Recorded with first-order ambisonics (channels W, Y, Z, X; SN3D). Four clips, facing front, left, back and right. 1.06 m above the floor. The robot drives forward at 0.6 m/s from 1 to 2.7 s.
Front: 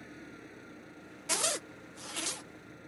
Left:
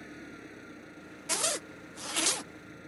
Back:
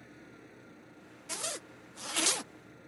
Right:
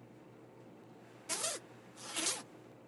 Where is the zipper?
45° left; by 2.4 s 140° left.